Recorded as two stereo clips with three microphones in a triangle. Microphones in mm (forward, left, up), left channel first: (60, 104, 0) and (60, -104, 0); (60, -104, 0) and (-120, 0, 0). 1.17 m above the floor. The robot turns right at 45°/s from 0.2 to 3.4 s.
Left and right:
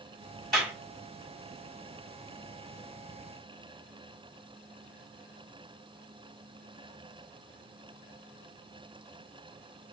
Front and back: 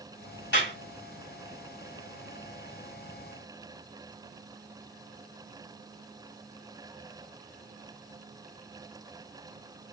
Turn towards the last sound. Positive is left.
turn(degrees=130)